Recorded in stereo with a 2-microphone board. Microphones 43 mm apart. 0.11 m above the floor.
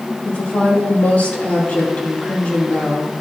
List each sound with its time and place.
0.2 s a woman speaking: 35° left (ahead or behind), 2.5 m